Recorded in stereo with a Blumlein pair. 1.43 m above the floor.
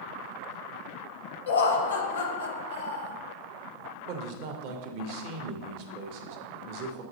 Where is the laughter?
65° left, 0.7 m.